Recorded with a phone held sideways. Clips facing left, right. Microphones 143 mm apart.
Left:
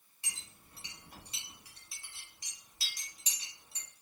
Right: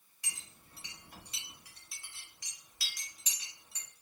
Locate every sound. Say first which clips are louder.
0.2 s a clink: even; 30° left (ahead or behind), 1.0 m